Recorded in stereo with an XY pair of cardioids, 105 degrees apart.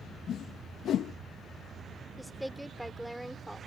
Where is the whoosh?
60° left.